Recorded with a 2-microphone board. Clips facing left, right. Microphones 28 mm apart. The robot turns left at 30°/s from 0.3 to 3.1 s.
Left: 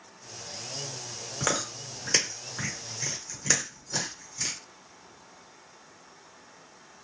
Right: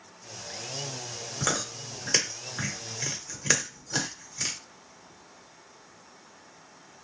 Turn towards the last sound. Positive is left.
turn(degrees=-25)  # may be behind; listen again after turning